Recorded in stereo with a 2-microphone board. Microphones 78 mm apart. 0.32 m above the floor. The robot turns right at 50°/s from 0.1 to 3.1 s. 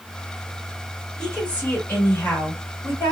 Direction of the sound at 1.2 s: 15° left.